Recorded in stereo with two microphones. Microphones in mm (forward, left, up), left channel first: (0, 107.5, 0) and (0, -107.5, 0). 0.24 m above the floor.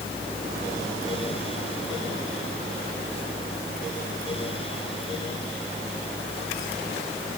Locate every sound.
Only background noise.